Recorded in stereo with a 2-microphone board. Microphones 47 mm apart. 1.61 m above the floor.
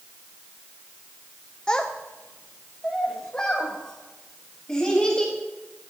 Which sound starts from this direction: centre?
A child speaking, at 1.7 s.